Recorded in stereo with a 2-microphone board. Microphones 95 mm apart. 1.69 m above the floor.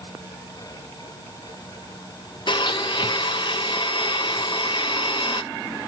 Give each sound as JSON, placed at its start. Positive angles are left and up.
{"t": 2.5, "sound": "a blender", "side_deg": 55, "distance_m": 0.6}